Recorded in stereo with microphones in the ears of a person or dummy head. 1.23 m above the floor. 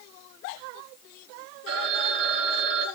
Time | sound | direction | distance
1.7 | a phone ringing | 70° right (ahead or behind) | 5.5 m